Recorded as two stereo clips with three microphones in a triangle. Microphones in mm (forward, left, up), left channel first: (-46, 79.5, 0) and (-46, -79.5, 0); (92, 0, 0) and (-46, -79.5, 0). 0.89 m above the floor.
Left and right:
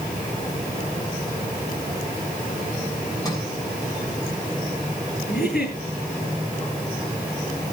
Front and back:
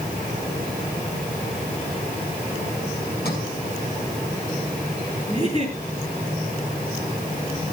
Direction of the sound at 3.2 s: 25° left.